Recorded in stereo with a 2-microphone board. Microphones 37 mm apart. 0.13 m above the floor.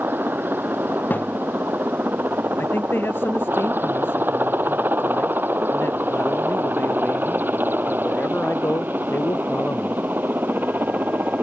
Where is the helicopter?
65° right (ahead or behind); by 11.4 s 60° right (ahead or behind).